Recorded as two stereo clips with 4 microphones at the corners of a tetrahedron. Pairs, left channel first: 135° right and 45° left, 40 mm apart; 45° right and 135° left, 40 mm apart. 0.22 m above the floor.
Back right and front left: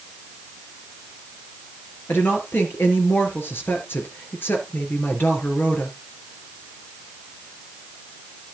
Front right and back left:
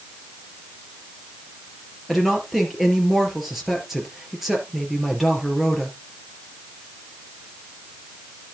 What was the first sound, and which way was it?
A woman speaking, 140° right.